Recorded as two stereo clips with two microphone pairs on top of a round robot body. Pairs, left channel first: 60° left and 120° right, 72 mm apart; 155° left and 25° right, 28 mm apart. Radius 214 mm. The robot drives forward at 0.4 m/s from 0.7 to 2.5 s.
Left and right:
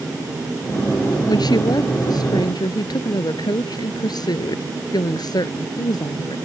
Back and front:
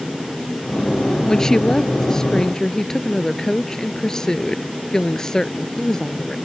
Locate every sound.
1.3 s a woman speaking: 80° left; by 6.4 s 85° left